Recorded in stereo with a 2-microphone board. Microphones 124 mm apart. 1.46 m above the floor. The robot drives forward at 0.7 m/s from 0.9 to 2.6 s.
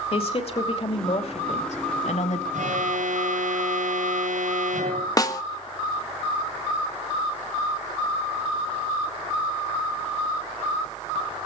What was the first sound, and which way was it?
A woman speaking, 50° left (ahead or behind).